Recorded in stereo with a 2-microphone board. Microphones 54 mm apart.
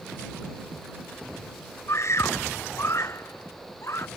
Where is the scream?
55° left (ahead or behind).